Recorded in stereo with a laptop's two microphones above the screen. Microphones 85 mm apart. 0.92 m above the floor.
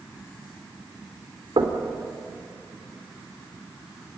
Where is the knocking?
75° right (ahead or behind), 2.5 m.